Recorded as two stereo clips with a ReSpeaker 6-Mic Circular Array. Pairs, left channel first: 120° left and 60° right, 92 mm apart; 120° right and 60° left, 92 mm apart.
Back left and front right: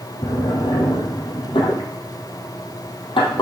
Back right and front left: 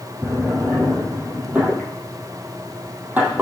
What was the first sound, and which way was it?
A drawer, 130° left.